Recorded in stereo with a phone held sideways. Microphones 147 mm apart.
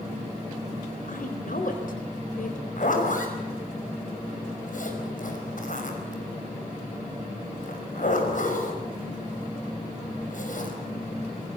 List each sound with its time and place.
1.1 s a woman speaking: 65° left (ahead or behind), 4 m
2.8 s a zipper: 60° left (ahead or behind), 5 m